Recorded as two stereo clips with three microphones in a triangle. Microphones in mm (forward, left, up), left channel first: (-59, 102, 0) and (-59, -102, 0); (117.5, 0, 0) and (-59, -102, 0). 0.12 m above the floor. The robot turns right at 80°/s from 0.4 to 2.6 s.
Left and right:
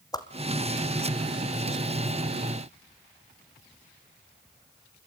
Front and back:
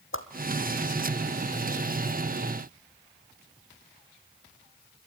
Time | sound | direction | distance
0.1 | a whoosh | 20° left | 1.5 m